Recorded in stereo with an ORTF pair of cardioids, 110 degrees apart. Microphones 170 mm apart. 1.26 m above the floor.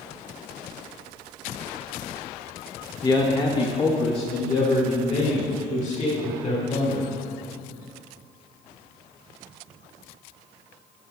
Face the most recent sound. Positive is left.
turn(degrees=40)